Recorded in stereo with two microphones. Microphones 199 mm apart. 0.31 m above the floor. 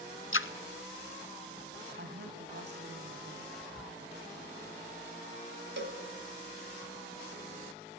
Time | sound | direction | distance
0.3 | a splash | 90° left | 0.8 m
2.0 | a woman speaking | 60° right (ahead or behind) | 2.5 m
3.5 | whispering | centre (ahead or behind) | 1.2 m
5.8 | a cowbell | 65° right (ahead or behind) | 2 m